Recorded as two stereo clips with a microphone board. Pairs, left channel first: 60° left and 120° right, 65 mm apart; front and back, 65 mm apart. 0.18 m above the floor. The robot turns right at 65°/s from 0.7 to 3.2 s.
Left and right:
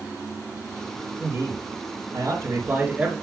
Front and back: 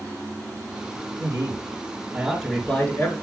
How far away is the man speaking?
About 3 m.